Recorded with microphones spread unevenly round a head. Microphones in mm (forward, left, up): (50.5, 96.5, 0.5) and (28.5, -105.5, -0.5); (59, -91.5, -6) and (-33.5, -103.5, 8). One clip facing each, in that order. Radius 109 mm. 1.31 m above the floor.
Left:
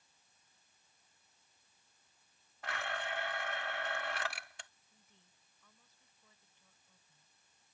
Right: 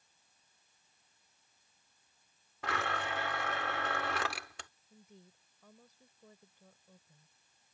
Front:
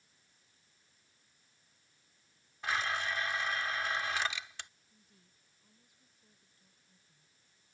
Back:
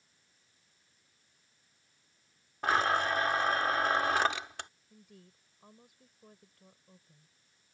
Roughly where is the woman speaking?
Behind right.